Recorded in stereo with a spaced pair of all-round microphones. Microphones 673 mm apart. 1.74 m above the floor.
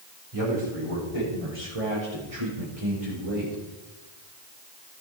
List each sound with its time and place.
0.3 s a man speaking: 55° right (ahead or behind), 7.5 m